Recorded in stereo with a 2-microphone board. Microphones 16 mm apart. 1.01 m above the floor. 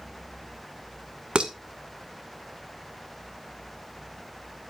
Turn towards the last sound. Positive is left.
turn(degrees=-85)